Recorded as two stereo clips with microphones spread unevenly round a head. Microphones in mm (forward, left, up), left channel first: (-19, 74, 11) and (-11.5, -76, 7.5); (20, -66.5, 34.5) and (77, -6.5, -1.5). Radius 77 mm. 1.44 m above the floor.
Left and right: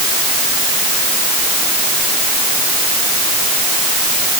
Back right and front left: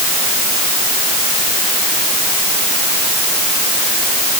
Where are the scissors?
No scissors in this recording.